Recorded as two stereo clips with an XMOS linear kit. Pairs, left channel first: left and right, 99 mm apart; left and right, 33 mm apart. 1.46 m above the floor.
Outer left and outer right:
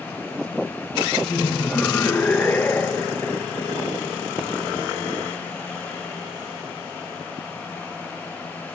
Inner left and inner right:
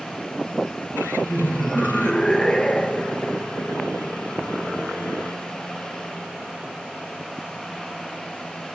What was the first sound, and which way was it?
Laughter, 20° left (ahead or behind).